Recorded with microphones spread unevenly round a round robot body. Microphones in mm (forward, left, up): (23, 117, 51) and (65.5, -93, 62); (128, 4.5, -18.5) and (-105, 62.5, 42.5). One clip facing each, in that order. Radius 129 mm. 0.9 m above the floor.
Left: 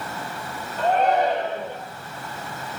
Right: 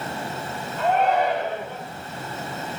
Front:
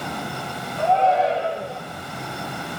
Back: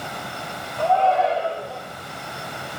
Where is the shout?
50° left, 5 m.